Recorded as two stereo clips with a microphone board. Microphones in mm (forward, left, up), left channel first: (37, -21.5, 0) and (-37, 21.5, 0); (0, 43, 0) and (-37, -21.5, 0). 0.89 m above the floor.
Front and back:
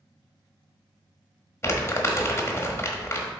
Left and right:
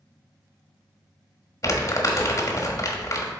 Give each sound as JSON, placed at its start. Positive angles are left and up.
{"t": 1.6, "sound": "crumpling", "azimuth_deg": 25, "distance_m": 1.3}